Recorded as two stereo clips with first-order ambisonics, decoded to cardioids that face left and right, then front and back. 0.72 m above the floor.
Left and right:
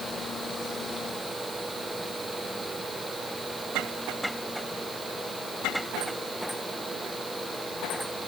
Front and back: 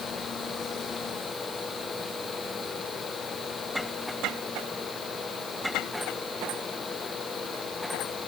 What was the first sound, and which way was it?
Only background noise.